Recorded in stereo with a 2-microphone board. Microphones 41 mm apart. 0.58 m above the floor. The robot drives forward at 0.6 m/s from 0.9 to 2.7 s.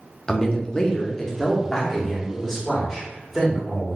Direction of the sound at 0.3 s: 15° left (ahead or behind).